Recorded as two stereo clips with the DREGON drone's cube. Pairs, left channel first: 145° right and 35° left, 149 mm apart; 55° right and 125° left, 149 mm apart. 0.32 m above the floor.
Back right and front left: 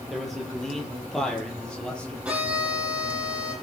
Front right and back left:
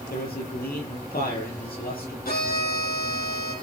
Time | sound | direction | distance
0.1 | a man speaking | 55° right | 8.5 m
2.2 | a violin | 50° right | 9 m